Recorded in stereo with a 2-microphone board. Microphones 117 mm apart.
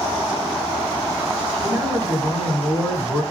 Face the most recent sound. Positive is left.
turn(degrees=45)  # may be behind; listen again after turning